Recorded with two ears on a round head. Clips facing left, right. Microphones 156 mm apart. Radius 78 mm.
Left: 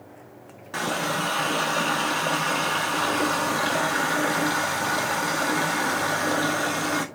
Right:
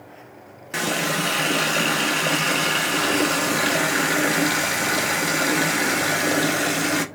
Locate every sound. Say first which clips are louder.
0.7 s a running tap: right 2 dB; 25° right (ahead or behind), 0.5 m